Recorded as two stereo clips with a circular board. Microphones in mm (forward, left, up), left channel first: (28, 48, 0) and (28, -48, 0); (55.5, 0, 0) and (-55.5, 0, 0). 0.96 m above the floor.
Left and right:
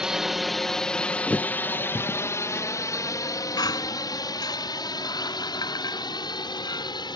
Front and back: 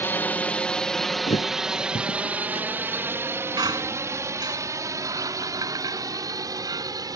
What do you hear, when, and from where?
0.0 s a drone: 20° right; by 7.2 s 125° left
1.3 s a thud: 15° left
3.6 s a squeak: 130° left